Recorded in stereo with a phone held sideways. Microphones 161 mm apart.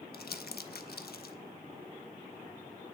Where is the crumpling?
75° left (ahead or behind), 0.5 m.